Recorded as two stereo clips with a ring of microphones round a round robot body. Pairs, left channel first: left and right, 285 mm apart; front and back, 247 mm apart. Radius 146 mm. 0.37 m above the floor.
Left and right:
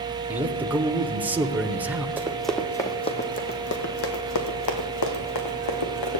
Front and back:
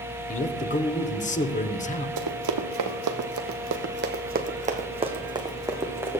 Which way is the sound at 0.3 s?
10° right.